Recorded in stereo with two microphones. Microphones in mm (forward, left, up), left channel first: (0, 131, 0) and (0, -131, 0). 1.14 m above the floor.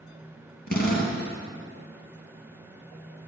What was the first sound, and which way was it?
A drill, 40° left (ahead or behind).